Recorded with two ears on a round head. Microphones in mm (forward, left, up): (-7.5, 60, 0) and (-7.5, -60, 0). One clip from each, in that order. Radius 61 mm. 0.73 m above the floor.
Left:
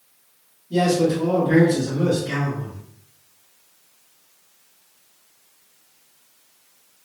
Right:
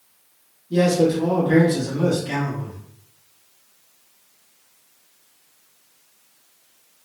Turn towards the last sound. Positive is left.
turn(degrees=-45)  # may be behind; listen again after turning